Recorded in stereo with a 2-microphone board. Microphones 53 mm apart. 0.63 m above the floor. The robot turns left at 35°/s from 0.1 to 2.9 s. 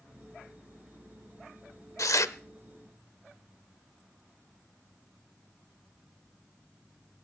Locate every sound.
2.0 s tearing paper: 75° left (ahead or behind), 0.6 m